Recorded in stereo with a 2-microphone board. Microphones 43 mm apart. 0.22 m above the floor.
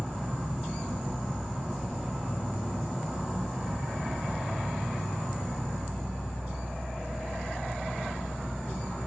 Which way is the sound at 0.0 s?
15° right (ahead or behind).